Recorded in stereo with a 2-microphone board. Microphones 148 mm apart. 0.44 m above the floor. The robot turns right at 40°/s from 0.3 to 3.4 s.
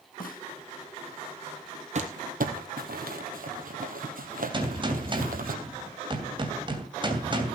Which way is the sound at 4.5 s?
35° right (ahead or behind).